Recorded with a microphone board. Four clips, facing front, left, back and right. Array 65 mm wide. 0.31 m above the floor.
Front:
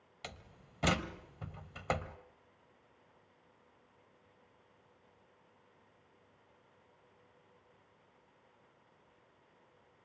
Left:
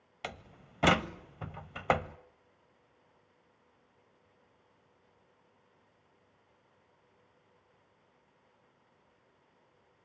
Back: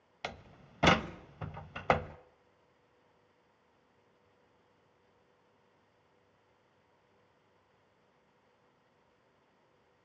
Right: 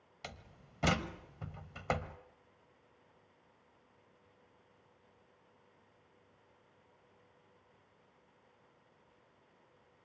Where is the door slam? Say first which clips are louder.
Left 7 dB, back 7 dB; 135° left, 0.8 m.